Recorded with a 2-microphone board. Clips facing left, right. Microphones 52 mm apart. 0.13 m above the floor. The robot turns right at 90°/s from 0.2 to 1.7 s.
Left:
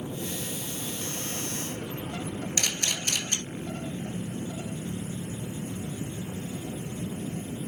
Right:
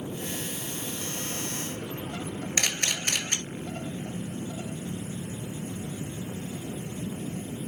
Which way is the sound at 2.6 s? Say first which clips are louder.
Right 4 dB; 50° right (ahead or behind).